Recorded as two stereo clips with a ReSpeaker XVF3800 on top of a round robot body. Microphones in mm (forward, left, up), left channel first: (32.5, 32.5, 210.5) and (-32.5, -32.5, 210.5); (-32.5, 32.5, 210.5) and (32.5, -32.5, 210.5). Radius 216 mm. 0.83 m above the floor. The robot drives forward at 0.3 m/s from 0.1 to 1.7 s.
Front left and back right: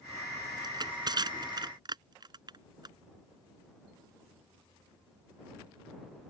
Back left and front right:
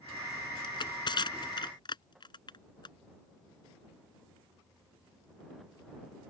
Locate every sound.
0.6 s crushing: straight behind